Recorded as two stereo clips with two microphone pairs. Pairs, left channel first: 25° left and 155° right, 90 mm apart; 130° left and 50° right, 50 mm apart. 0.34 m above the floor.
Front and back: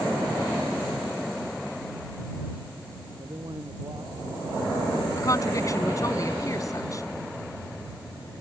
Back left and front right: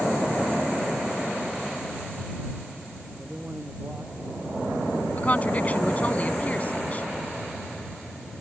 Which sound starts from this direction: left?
A woman speaking, at 5.2 s.